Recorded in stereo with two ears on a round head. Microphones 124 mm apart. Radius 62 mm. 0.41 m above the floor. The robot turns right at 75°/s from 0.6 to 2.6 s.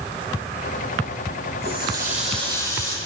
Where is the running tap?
95° right, 8 m; by 3.0 s 20° right, 8 m.